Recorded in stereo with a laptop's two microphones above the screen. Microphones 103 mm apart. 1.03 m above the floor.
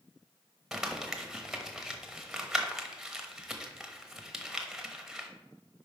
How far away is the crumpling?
About 1.0 m.